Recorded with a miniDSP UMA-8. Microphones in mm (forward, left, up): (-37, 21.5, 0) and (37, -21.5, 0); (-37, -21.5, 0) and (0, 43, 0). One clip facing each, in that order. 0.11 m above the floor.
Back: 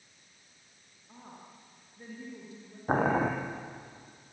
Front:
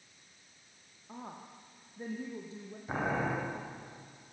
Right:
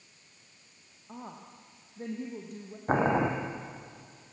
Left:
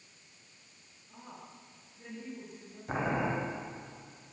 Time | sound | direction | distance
1.1 | a woman speaking | 90° right | 4 m
2.9 | boiling | 170° right | 4 m